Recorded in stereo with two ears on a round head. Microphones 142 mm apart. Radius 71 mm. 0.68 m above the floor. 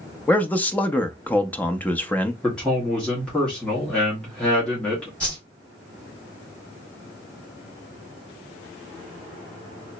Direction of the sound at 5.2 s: 5° left (ahead or behind).